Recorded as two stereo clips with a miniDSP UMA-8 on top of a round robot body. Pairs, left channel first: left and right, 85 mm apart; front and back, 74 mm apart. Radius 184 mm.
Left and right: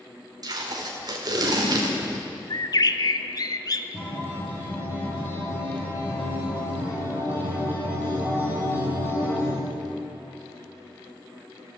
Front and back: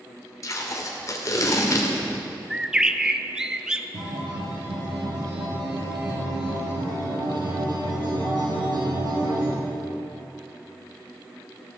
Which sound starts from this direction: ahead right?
Tape being pulled, at 0.4 s.